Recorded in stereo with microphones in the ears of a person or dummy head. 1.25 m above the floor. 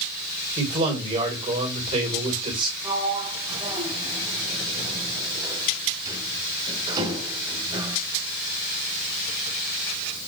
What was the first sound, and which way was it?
A man speaking, 35° right (ahead or behind).